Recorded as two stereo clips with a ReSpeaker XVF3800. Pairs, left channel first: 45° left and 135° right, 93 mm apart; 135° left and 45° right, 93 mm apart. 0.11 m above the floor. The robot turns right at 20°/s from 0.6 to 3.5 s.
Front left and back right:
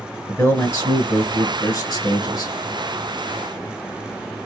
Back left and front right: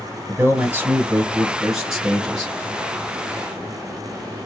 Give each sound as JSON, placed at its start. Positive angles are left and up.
{"t": 0.3, "sound": "a man speaking", "azimuth_deg": -5, "distance_m": 1.9}